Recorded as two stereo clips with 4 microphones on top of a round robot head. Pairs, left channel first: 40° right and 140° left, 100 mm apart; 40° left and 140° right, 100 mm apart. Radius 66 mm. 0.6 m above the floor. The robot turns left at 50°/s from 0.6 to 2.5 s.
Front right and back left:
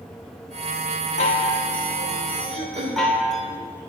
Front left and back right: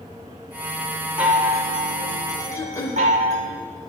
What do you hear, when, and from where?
1.2 s a chime: 60° right, 0.8 m; by 3.5 s 130° right, 0.8 m
2.5 s throat clearing: 105° left, 0.7 m